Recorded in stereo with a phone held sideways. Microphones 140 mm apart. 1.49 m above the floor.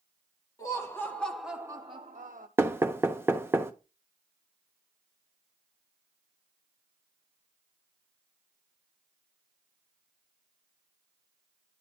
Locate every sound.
0.6 s laughter: 25° left (ahead or behind), 1.7 m; by 2.5 s 75° right (ahead or behind), 1.0 m
2.6 s knocking: 15° right (ahead or behind), 0.7 m